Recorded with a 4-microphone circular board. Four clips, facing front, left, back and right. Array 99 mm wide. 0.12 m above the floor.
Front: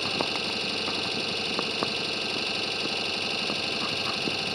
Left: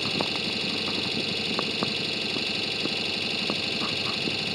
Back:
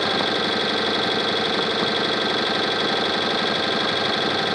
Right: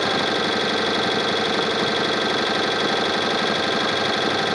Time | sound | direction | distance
0.0 | an engine running | 125° right | ?